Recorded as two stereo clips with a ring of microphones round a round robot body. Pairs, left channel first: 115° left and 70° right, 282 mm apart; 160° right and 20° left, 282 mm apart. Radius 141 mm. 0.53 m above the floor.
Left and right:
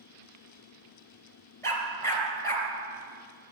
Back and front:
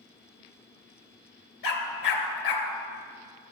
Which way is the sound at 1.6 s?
165° right.